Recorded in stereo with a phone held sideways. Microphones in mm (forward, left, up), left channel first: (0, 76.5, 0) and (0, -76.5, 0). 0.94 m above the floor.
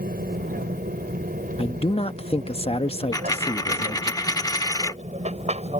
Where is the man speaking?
40° left (ahead or behind).